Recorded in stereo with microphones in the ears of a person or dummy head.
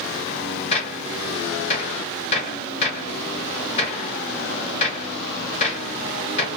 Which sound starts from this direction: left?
A gunshot, at 0.7 s.